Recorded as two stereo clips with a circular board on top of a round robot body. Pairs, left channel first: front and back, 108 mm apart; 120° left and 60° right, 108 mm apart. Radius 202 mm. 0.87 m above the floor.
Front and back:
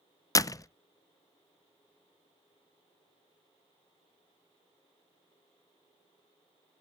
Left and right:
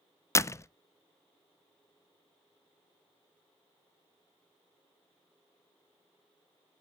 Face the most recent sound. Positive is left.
turn(degrees=55)